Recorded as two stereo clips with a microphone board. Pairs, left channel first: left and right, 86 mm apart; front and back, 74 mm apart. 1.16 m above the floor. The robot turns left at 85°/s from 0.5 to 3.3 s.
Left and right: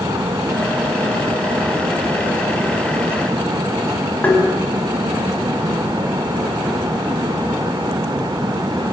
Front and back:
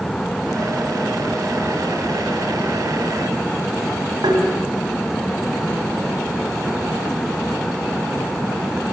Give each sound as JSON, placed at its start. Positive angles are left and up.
{"t": 4.2, "sound": "tapping", "azimuth_deg": 165, "distance_m": 5.5}